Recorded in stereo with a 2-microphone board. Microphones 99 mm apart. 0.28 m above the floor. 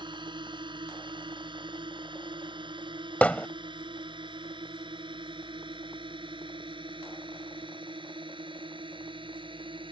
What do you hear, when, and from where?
0.0 s a drone: 55° right (ahead or behind); by 9.9 s 60° right (ahead or behind)
3.2 s hammering: 15° left (ahead or behind)